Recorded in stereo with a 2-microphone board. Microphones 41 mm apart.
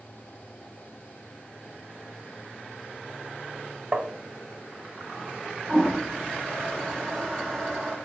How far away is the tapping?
About 0.6 m.